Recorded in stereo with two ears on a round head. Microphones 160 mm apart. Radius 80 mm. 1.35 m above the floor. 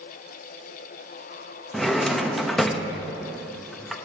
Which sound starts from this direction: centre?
A drawer, at 1.7 s.